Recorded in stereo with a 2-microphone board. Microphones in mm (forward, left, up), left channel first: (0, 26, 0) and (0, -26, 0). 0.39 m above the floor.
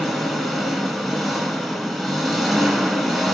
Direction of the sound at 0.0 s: Centre (ahead or behind).